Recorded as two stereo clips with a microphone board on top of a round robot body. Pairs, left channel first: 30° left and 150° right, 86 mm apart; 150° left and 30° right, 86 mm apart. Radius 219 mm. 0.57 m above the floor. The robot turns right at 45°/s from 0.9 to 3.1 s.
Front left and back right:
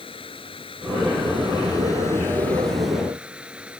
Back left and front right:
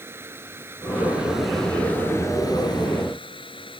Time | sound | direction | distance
0.0 | running water | 35° left | ?